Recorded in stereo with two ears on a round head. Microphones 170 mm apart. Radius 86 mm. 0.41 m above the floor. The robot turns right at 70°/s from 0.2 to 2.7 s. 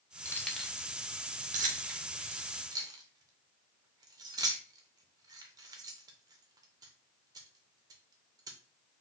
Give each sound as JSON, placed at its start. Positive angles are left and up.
{"t": 0.2, "sound": "keys jangling", "side_deg": 15, "distance_m": 0.6}